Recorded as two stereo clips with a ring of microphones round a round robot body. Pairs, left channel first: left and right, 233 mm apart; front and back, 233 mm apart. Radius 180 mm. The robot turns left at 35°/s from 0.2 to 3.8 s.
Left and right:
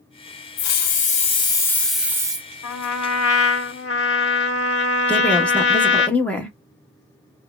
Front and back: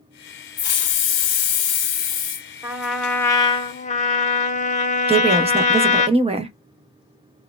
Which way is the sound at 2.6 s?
100° left.